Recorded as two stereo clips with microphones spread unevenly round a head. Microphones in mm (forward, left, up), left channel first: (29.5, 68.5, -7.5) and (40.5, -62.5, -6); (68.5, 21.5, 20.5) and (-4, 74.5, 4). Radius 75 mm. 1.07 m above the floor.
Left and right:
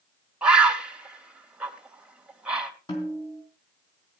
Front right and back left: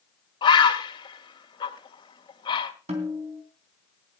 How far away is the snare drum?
About 3 m.